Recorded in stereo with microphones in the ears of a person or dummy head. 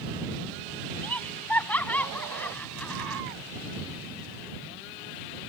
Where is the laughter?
10° left (ahead or behind); by 3.2 s 5° left (ahead or behind).